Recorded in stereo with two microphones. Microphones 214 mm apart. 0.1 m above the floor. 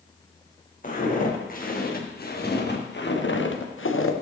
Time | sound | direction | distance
0.8 | footsteps | 40° left (ahead or behind) | 4 m